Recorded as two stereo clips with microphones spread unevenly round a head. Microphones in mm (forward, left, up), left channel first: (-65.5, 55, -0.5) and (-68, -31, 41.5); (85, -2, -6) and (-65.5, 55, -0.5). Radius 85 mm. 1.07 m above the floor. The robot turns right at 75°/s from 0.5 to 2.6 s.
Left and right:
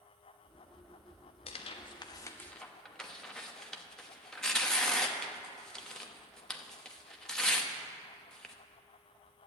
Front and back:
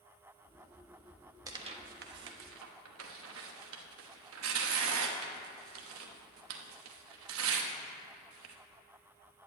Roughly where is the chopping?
I don't hear chopping.